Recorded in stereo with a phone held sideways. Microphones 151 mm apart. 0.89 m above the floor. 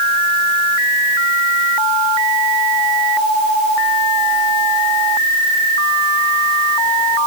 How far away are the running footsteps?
I don't hear running footsteps.